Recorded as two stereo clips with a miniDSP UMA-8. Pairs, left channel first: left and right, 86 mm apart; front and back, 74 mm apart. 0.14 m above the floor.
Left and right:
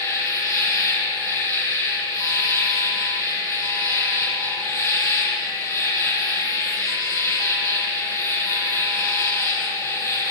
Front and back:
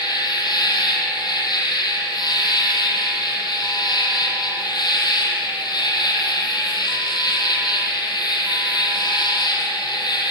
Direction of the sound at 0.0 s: 30° left.